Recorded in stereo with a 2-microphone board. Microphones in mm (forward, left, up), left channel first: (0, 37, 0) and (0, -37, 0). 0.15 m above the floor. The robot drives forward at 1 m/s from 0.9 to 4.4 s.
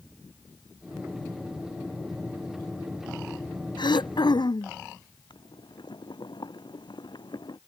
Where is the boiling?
80° left.